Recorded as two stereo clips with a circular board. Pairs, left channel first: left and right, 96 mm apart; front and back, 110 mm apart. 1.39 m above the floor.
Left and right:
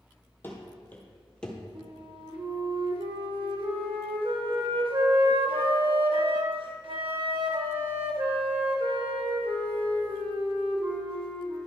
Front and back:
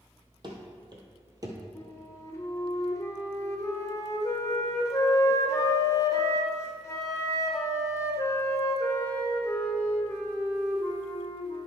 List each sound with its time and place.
0.4 s running footsteps: 150° left, 2 m; by 1.6 s 170° left, 1.6 m
1.8 s a flute: 65° right, 1.2 m